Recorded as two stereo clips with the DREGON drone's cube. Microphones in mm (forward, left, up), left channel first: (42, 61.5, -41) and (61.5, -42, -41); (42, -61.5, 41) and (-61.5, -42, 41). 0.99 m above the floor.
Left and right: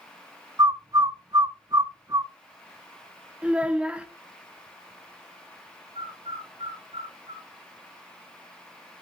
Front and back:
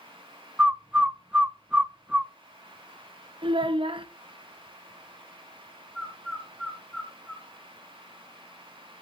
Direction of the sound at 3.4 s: 160° right.